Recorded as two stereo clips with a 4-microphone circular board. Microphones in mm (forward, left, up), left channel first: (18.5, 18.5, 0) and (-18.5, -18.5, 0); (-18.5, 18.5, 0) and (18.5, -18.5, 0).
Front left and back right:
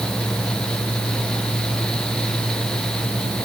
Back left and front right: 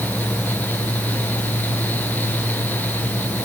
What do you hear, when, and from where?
Only background noise.